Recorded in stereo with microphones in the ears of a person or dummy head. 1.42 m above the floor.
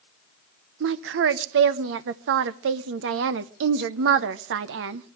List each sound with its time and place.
0.8 s a woman speaking: 75° right (ahead or behind), 0.8 m